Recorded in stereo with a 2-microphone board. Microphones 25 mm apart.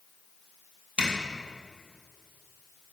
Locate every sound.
1.0 s a zipper: 50° right (ahead or behind), 1.5 m